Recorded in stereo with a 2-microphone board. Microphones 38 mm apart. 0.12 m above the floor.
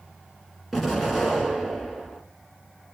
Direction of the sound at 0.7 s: 5° left (ahead or behind).